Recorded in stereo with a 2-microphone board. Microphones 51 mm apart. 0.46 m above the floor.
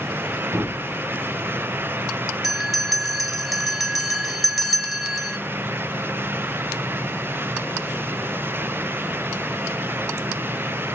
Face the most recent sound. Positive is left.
turn(degrees=-5)  # may be behind; listen again after turning